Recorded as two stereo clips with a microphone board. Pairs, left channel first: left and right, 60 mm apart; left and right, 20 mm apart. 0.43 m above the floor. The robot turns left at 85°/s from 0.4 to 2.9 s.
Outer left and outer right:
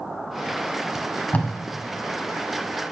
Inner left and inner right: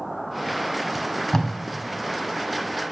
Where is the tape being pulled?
10° right (ahead or behind), 0.8 m; by 1.6 s 45° left (ahead or behind), 0.8 m.